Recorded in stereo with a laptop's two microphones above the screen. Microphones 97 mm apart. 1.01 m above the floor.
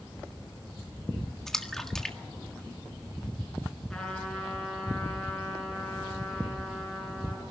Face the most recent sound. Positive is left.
turn(degrees=5)  # may be behind; listen again after turning